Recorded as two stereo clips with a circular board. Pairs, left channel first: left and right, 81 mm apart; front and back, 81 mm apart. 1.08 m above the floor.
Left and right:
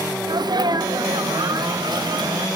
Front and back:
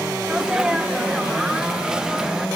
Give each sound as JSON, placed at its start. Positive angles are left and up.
{"t": 0.3, "sound": "a sneeze", "azimuth_deg": -100, "distance_m": 1.4}